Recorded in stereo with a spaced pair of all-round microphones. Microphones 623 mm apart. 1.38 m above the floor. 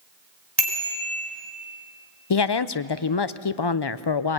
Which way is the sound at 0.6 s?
40° right (ahead or behind).